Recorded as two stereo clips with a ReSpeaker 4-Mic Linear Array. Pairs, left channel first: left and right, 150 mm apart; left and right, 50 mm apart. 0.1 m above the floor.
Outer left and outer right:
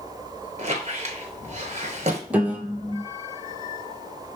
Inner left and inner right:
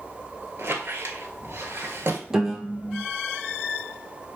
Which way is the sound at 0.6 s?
50° right (ahead or behind).